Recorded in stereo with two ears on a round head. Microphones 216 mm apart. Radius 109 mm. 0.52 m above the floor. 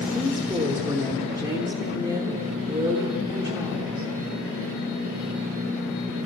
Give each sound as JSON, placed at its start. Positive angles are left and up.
{"t": 0.1, "sound": "a woman speaking", "side_deg": -10, "distance_m": 1.1}